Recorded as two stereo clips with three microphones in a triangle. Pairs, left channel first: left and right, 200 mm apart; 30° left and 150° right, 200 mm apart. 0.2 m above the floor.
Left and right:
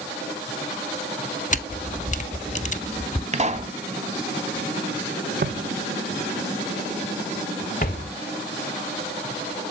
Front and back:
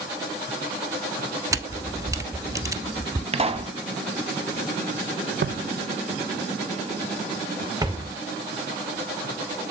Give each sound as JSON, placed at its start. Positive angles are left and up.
{"t": 1.5, "sound": "a camera shutter", "azimuth_deg": 140, "distance_m": 0.8}
{"t": 3.3, "sound": "a pop", "azimuth_deg": -115, "distance_m": 1.0}
{"t": 5.4, "sound": "footsteps", "azimuth_deg": -125, "distance_m": 0.6}